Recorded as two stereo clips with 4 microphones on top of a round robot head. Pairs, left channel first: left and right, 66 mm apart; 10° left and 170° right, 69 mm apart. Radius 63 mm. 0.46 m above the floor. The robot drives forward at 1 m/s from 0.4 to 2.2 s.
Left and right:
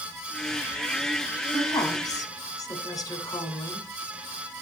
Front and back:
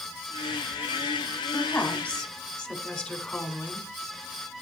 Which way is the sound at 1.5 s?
70° left.